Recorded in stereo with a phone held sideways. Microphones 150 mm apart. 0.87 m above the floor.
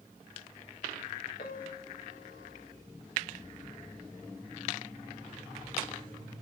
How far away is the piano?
About 3 m.